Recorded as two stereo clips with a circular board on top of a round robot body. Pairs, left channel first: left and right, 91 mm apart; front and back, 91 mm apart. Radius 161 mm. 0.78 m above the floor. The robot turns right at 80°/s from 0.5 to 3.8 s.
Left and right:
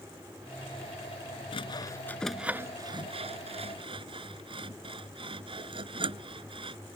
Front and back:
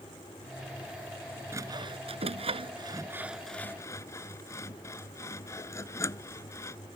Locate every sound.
1.5 s sawing: 115° left; by 6.8 s 60° right